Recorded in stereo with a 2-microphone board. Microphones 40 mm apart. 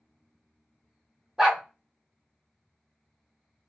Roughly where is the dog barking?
Centre.